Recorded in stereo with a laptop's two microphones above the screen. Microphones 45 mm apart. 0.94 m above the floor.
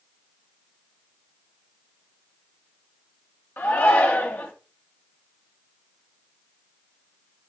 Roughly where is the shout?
Left.